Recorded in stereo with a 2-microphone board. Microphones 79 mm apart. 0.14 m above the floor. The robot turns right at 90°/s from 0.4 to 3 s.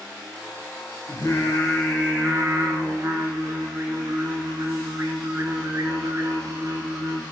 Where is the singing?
95° left, 0.6 m; by 7.2 s 95° right, 0.6 m.